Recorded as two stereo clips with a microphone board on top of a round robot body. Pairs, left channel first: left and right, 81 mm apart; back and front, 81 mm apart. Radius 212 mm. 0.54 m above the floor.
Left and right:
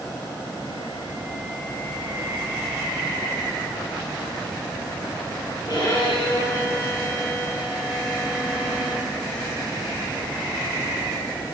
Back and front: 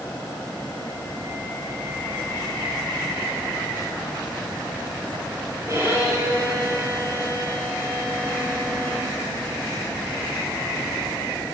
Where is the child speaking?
No child speaking in this recording.